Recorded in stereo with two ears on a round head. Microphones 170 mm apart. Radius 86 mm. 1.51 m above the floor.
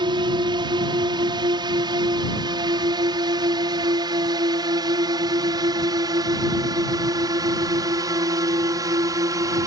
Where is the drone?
25° right (ahead or behind); by 9.7 s 20° right (ahead or behind).